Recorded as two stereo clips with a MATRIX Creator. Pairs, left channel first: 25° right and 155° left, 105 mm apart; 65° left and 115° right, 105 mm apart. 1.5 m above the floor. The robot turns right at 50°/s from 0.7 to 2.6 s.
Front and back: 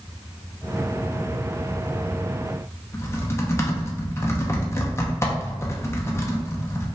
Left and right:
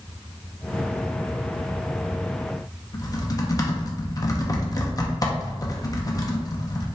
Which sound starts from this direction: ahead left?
Typing on a keyboard, at 2.9 s.